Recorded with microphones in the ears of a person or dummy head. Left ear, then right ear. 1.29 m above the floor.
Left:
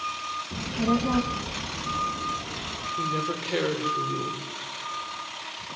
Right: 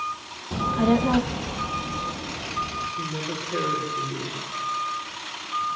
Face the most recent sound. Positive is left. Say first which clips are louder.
# left 2 dB
turn(degrees=85)